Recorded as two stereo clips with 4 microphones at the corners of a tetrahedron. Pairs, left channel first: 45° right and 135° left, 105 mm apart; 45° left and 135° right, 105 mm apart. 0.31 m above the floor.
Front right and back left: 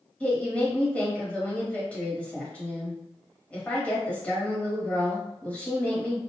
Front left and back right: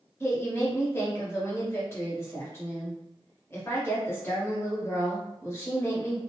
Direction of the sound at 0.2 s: 15° left.